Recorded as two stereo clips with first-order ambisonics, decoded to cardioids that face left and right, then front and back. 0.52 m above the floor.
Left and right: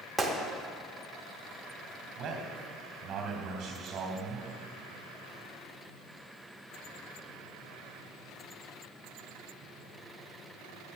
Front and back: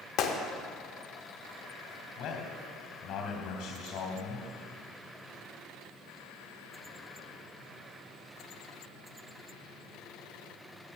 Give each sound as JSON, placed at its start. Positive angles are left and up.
{"t": 0.2, "sound": "a gunshot", "azimuth_deg": -5, "distance_m": 0.9}
{"t": 2.2, "sound": "a man speaking", "azimuth_deg": -30, "distance_m": 2.5}